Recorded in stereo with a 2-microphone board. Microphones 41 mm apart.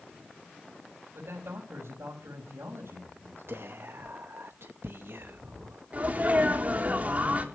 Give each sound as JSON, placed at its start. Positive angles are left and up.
{"t": 1.1, "sound": "a man speaking", "side_deg": -75, "distance_m": 6.0}
{"t": 3.5, "sound": "whispering", "side_deg": -70, "distance_m": 0.9}
{"t": 5.9, "sound": "a sneeze", "side_deg": -35, "distance_m": 3.5}